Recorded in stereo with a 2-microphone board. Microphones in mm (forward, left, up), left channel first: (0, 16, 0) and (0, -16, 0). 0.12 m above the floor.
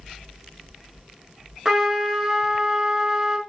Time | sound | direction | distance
1.6 | a trumpet | 20° right (ahead or behind) | 1.2 m